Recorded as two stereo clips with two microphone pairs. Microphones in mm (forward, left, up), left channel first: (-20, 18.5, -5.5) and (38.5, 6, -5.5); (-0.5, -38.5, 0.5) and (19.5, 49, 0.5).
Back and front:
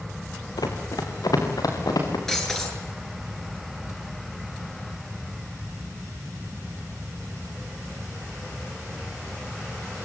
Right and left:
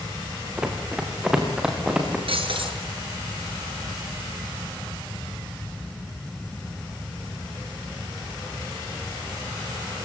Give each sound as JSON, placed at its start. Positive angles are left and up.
{"t": 0.6, "sound": "running footsteps", "azimuth_deg": 160, "distance_m": 5.5}
{"t": 2.3, "sound": "breaking glass", "azimuth_deg": 85, "distance_m": 8.5}